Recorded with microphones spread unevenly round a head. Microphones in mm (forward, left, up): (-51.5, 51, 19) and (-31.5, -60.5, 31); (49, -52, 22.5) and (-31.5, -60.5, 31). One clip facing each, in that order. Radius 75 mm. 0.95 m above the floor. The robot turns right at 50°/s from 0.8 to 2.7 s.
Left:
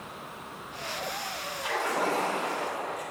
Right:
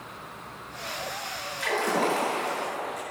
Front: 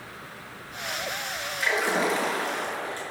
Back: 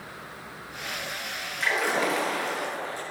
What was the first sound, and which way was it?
A splash, 85° right.